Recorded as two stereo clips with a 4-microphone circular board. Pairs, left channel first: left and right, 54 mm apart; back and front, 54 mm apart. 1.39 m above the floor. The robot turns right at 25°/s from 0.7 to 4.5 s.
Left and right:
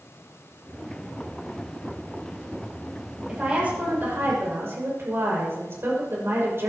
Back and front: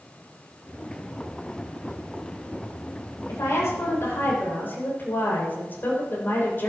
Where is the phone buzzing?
No phone buzzing in this recording.